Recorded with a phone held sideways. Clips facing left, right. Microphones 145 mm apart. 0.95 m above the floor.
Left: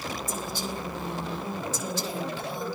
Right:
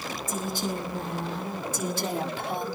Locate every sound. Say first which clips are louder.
0.3 s a woman speaking: right 3 dB; 55° right (ahead or behind), 8.5 m; by 2.7 s 65° right (ahead or behind), 6 m